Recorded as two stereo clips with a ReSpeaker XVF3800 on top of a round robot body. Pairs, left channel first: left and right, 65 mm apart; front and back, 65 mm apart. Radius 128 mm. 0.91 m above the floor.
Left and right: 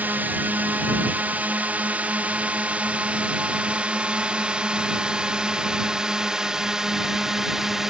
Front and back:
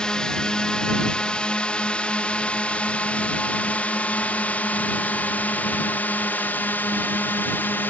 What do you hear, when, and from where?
0.0 s a drone: 65° right; by 7.9 s 10° right